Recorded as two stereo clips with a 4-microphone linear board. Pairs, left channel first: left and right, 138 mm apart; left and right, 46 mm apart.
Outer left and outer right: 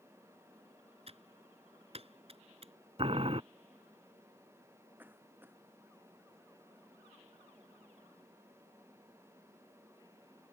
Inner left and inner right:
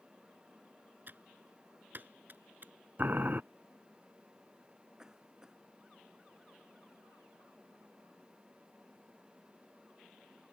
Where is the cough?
15° right (ahead or behind).